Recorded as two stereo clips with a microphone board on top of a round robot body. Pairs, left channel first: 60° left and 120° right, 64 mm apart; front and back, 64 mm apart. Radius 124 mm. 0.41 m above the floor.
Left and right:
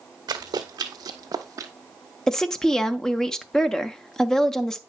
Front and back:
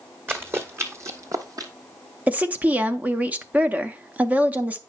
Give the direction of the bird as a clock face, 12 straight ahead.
I don't hear a bird.